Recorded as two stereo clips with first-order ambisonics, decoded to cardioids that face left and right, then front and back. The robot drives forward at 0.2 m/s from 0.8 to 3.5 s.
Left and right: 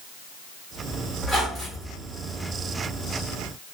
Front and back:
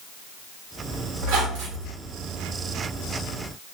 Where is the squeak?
165° right, 1.4 m.